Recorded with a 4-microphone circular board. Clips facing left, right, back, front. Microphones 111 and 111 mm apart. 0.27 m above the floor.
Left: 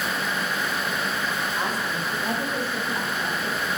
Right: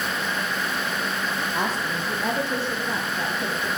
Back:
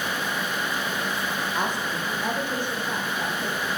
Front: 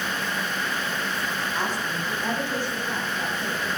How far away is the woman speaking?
About 10 m.